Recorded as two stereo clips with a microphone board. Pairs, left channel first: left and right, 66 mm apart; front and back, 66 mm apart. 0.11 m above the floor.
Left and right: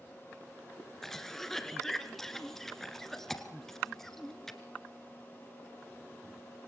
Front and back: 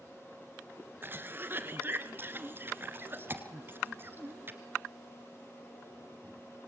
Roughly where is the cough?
Behind.